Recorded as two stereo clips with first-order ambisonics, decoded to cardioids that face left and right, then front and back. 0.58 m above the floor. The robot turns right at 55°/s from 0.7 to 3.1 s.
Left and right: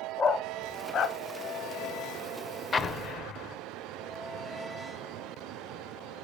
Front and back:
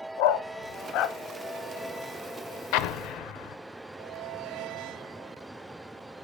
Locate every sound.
0.2 s a dog barking: 20° left, 0.8 m; by 1.2 s 45° left, 0.8 m
2.7 s an explosion: 15° left, 0.7 m; by 3.6 s 40° left, 0.7 m